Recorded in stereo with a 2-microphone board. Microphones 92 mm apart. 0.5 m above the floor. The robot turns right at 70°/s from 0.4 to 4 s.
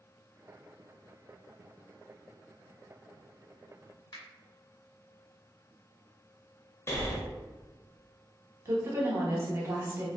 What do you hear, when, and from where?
4.1 s a finger snap: 45° left (ahead or behind), 1.4 m
6.9 s breathing: 30° left (ahead or behind), 0.6 m
8.7 s a woman speaking: 30° right (ahead or behind), 0.9 m